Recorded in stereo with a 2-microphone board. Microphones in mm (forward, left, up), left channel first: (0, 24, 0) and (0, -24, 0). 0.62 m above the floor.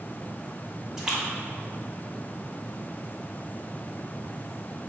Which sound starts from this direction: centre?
A splash, at 1.0 s.